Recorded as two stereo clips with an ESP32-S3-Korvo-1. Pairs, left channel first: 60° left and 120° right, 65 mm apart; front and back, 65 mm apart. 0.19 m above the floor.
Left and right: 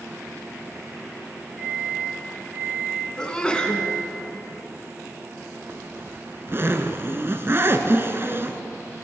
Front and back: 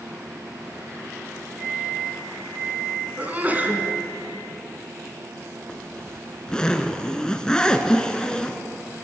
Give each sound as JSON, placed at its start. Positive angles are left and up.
{"t": 1.6, "sound": "a microwave", "azimuth_deg": -150, "distance_m": 6.5}
{"t": 3.2, "sound": "a sneeze", "azimuth_deg": 130, "distance_m": 2.0}
{"t": 5.7, "sound": "a zipper", "azimuth_deg": -75, "distance_m": 0.9}